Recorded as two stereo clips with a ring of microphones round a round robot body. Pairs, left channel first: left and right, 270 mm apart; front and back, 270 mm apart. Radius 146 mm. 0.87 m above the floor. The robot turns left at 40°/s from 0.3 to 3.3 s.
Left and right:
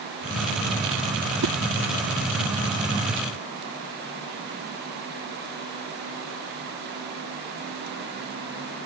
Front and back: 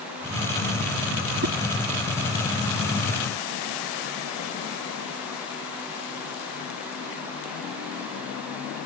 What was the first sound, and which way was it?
A whoosh, 135° right.